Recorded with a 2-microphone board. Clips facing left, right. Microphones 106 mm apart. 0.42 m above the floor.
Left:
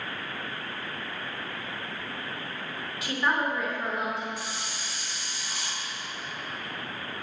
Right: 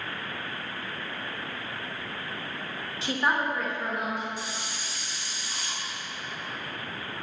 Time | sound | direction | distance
3.0 | a woman speaking | 25° right (ahead or behind) | 0.8 m
4.4 | a hiss | 70° left (ahead or behind) | 1.1 m